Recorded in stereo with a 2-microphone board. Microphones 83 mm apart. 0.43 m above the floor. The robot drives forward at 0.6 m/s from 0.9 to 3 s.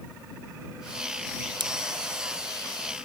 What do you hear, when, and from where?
1.6 s scissors: 75° right (ahead or behind)